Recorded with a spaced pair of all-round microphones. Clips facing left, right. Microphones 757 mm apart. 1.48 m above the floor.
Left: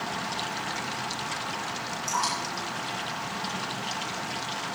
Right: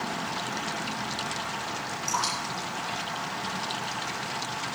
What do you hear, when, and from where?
2.1 s dripping: 80° left, 7.5 m